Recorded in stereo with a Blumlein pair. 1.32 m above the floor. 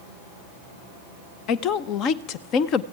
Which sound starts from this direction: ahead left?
A woman speaking, at 1.5 s.